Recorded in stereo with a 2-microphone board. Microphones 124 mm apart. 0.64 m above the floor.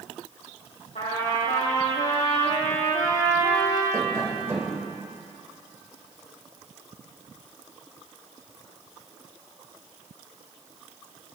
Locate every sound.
0.9 s a trumpet: 85° left, 5.5 m
3.9 s tapping: 25° right (ahead or behind), 3 m